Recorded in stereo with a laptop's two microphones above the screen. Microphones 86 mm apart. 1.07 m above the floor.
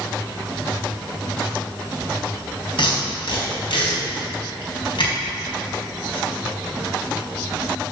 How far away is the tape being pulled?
About 3.5 m.